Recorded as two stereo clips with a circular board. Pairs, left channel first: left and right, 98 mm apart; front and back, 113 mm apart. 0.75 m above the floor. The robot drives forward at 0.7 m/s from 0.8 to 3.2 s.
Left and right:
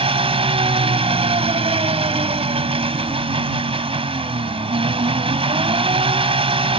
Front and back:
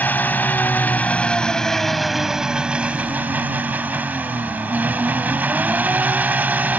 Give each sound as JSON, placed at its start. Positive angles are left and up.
{"t": 0.0, "sound": "an engine running", "azimuth_deg": -75}